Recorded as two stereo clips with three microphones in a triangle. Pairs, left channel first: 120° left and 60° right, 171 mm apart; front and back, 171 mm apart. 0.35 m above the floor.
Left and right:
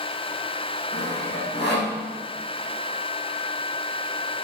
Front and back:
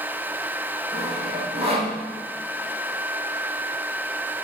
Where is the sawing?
125° left, 4 m.